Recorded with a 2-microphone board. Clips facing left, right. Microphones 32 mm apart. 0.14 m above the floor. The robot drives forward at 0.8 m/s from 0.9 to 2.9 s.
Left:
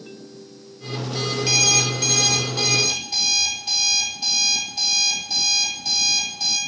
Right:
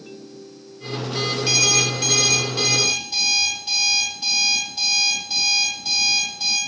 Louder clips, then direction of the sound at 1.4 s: Even; 10° right (ahead or behind).